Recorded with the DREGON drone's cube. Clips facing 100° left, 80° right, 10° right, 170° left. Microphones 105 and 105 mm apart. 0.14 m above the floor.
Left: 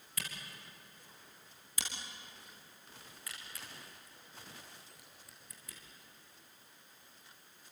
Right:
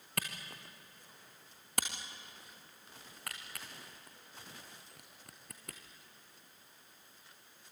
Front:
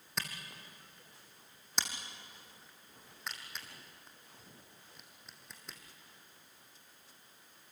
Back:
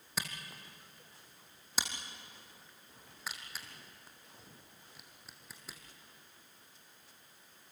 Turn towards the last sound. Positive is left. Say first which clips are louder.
# right 5 dB, back 1 dB
turn(degrees=-105)